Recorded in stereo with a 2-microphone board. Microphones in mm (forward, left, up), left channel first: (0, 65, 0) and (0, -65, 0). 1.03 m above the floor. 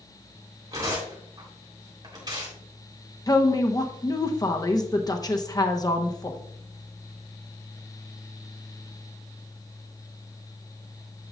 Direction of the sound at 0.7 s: 30° right (ahead or behind).